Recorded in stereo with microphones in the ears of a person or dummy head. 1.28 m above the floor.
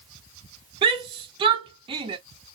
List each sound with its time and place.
0.8 s a shout: 25° right (ahead or behind), 0.9 m